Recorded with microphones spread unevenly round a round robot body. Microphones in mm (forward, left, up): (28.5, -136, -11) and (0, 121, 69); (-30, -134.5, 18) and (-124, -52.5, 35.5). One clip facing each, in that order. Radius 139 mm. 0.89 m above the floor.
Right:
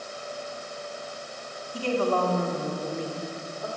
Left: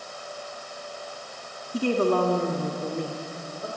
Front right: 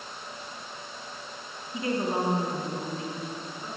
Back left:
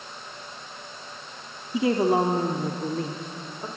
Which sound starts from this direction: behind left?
A woman speaking, at 1.7 s.